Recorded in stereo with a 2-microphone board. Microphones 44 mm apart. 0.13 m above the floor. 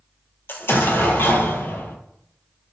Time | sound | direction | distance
0.5 | an explosion | 55° left (ahead or behind) | 0.6 m